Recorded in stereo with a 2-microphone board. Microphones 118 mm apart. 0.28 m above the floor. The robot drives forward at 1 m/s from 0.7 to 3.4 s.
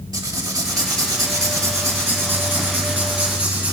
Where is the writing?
35° right (ahead or behind), 1.3 m; by 3.7 s 15° right (ahead or behind), 3 m.